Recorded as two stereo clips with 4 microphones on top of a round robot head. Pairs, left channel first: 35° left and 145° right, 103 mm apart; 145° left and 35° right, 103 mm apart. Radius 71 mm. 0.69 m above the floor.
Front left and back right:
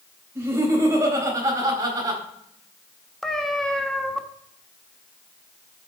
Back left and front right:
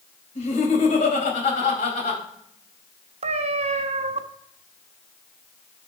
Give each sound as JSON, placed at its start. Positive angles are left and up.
{"t": 0.3, "sound": "laughter", "azimuth_deg": 145, "distance_m": 4.0}
{"t": 3.2, "sound": "a cat meowing", "azimuth_deg": -50, "distance_m": 1.0}